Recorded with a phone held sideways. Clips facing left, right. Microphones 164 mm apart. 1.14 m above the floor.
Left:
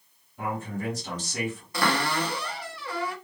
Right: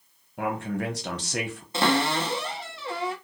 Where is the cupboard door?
25° right (ahead or behind), 0.6 m.